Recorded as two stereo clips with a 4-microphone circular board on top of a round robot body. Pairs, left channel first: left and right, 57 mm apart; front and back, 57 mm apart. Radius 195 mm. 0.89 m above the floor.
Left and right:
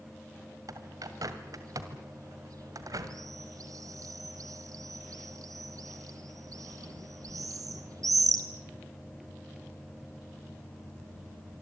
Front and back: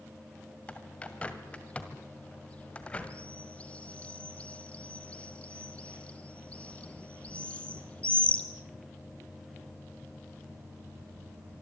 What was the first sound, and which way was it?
A bird, 70° right.